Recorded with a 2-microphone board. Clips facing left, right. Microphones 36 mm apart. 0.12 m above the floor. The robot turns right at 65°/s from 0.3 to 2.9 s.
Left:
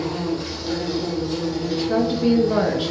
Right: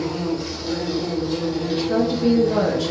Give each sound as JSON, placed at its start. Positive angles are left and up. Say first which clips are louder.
{"t": 0.0, "sound": "an insect", "louder": "right 1 dB", "azimuth_deg": 130, "distance_m": 2.5}
{"t": 1.6, "sound": "a woman speaking", "louder": "even", "side_deg": 10, "distance_m": 1.1}